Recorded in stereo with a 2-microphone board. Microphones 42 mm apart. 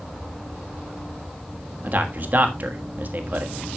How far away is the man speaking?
About 1.5 m.